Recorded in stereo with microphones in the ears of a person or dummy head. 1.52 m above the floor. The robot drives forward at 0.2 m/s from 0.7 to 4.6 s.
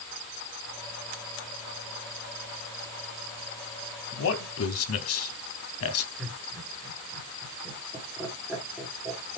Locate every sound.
4.1 s a man speaking: 75° left (ahead or behind), 0.7 m
6.2 s laughter: centre (ahead or behind), 2.5 m